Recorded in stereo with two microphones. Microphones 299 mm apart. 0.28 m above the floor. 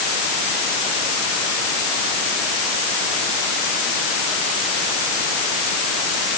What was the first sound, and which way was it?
Only background noise.